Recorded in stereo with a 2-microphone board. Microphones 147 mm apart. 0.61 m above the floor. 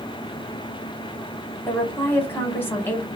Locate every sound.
1.7 s a woman speaking: 15° left (ahead or behind), 1.2 m